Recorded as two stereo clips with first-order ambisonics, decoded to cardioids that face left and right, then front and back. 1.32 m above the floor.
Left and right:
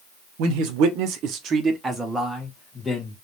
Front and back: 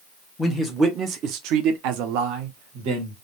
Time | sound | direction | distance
0.4 | a man speaking | 90° right | 0.7 m